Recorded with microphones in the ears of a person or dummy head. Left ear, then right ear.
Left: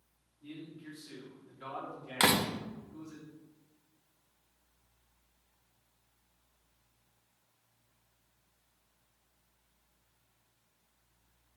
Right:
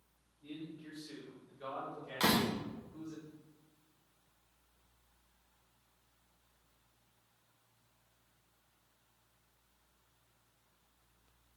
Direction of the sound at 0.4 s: 15° left (ahead or behind).